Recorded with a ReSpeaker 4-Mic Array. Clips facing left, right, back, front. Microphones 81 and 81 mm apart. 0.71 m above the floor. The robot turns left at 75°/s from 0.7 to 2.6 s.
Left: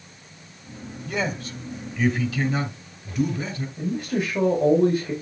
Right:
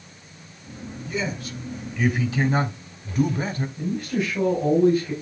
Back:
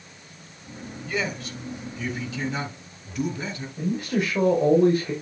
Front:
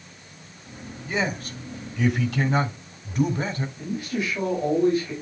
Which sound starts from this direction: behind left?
A man speaking, at 3.8 s.